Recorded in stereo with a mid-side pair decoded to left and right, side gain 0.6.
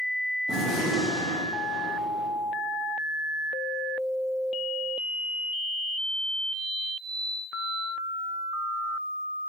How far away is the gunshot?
About 1.6 m.